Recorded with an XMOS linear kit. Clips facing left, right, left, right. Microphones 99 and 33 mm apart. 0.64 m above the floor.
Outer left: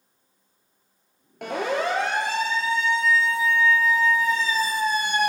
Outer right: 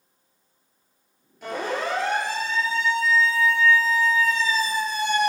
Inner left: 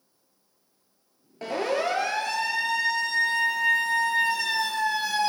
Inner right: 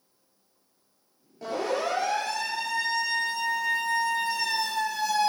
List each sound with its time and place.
1.4 s a siren: 70° left (ahead or behind), 9 m; by 5.3 s 55° left (ahead or behind), 6 m